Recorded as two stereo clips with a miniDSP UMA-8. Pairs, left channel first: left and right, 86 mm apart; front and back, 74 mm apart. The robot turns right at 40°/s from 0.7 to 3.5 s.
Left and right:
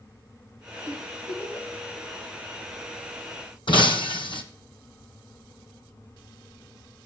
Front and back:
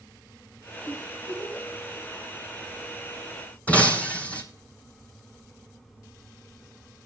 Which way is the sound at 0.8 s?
35° left.